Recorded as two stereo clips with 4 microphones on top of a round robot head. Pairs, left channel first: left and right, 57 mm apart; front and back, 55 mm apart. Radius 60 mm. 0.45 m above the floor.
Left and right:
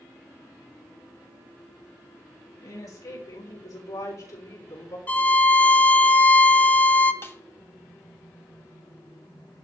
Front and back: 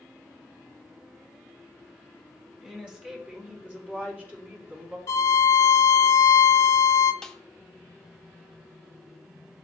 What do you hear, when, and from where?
2.6 s a woman speaking: 110° left, 4.5 m; by 5.0 s 125° left, 4.5 m
5.1 s a violin: 30° left, 1.0 m
7.2 s a snare drum: 80° left, 1.0 m